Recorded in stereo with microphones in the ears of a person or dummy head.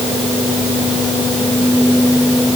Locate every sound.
Only background noise.